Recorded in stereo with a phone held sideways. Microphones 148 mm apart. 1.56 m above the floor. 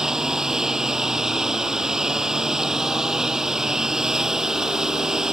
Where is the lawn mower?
5° right (ahead or behind).